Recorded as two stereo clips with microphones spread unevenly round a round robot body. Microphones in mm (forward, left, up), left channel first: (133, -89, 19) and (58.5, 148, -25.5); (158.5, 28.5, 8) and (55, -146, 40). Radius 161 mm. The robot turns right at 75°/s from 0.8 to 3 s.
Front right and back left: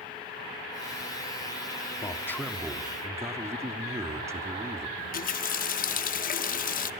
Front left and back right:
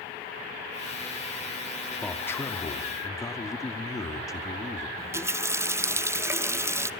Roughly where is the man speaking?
Ahead.